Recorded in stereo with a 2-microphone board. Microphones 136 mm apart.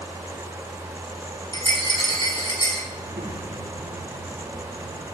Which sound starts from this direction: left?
A rattle, at 1.5 s.